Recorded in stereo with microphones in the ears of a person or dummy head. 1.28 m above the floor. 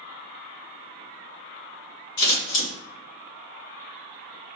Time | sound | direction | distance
2.2 | scissors | 60° left (ahead or behind) | 1.7 m